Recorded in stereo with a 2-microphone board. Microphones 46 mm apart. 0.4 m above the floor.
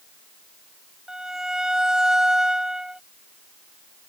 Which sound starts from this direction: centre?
A violin, at 1.1 s.